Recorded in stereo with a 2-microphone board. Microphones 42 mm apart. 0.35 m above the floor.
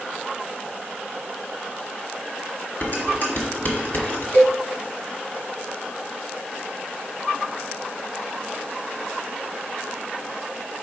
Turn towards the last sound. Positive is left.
turn(degrees=65)  # may be behind; listen again after turning